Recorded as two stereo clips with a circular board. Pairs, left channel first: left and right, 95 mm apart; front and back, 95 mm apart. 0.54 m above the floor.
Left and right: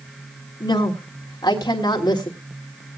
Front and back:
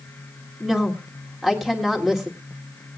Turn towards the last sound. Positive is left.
turn(degrees=90)